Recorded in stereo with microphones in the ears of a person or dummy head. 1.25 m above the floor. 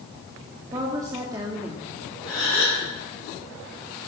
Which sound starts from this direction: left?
A gasp, at 2.3 s.